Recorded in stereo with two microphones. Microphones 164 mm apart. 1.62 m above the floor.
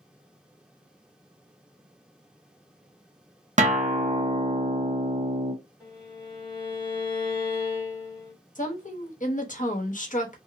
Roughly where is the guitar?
Right.